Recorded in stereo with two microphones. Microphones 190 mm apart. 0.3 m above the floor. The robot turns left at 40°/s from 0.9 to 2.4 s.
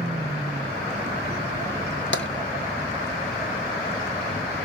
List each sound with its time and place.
2.1 s tapping: 80° left, 1.0 m; by 2.3 s 70° left (ahead or behind), 1.0 m